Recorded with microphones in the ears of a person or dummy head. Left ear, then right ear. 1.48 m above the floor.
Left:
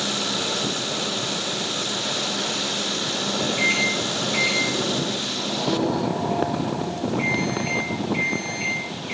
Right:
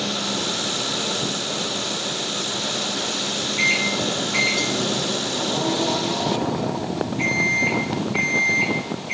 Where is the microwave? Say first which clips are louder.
Right 2 dB; 5° left (ahead or behind), 7 m.